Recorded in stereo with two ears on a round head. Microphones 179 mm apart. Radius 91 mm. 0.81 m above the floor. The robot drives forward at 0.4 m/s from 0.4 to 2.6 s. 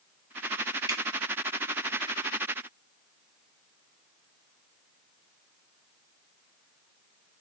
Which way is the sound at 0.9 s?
25° right (ahead or behind).